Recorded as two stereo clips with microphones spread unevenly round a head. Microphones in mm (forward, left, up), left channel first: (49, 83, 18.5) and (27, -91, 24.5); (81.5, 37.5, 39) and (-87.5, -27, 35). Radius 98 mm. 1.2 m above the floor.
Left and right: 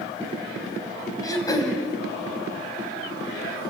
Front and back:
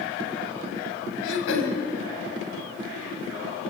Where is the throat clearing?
10° left, 3.5 m.